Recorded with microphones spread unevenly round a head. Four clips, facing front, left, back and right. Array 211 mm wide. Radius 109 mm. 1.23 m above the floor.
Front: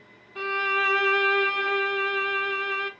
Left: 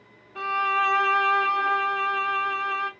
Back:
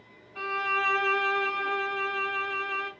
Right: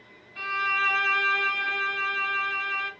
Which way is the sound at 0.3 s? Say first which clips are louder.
Left 4 dB, front 3 dB; 75° left.